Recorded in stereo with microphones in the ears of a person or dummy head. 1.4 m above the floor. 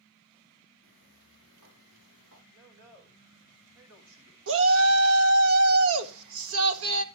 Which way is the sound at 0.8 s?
75° right (ahead or behind).